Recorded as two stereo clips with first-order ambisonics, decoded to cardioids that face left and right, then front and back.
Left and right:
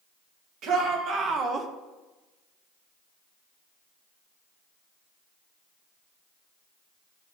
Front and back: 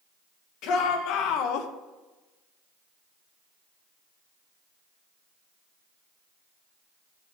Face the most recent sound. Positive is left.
turn(degrees=-20)